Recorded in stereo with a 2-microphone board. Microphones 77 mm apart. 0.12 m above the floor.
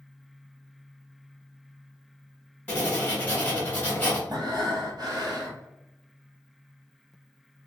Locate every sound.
2.7 s writing: 20° left (ahead or behind), 1.4 m
4.3 s breathing: 60° right (ahead or behind), 1.1 m